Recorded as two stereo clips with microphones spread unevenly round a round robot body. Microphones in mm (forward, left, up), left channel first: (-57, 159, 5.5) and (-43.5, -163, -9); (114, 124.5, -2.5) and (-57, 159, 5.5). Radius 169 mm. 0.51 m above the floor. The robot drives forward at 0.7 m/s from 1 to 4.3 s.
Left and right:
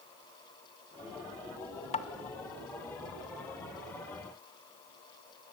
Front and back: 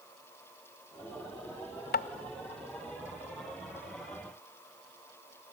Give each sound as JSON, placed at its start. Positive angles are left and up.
{"t": 1.9, "sound": "tapping", "azimuth_deg": 20, "distance_m": 0.8}